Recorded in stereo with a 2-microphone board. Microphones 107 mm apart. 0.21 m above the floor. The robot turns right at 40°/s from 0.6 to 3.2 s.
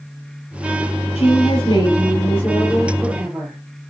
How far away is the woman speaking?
About 4.5 m.